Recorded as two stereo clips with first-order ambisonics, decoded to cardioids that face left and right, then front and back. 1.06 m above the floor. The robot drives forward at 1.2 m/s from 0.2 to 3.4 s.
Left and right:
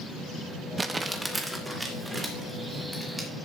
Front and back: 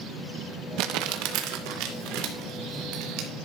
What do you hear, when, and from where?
0.8 s crumpling: 165° right, 0.9 m; by 3.3 s 175° right, 4 m